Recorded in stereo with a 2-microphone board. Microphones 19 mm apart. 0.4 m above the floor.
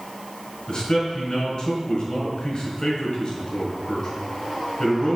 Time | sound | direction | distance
0.7 | a man speaking | 50° left (ahead or behind) | 3.5 m